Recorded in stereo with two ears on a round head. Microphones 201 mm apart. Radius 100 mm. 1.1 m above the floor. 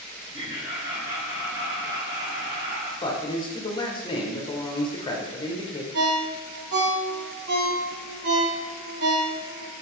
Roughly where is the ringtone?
Right.